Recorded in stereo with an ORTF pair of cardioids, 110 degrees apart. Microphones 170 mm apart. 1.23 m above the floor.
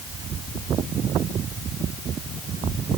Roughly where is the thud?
I don't hear a thud.